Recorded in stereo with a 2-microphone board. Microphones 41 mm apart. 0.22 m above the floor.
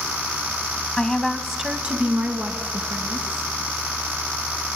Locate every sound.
1.0 s a woman speaking: 25° left (ahead or behind), 1.4 m; by 3.5 s 65° right (ahead or behind), 3.5 m